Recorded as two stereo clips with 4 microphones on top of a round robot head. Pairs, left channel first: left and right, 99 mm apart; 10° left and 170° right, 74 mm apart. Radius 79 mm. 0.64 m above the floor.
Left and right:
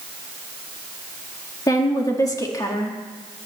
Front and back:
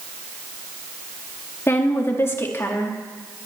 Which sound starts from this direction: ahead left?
A woman speaking, at 1.7 s.